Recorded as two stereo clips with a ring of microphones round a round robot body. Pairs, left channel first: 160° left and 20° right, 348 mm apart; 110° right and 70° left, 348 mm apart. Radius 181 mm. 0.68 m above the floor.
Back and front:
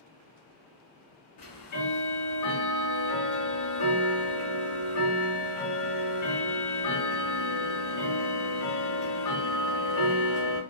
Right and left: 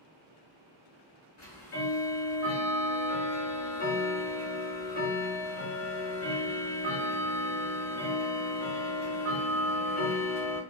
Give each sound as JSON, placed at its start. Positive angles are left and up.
{"t": 1.4, "sound": "ticking", "azimuth_deg": -165, "distance_m": 1.1}